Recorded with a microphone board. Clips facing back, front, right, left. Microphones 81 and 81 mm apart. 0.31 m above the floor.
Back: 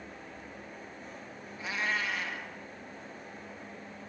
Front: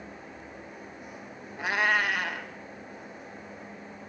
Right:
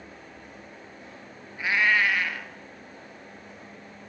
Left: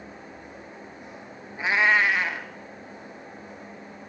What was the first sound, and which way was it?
A cat meowing, 20° left.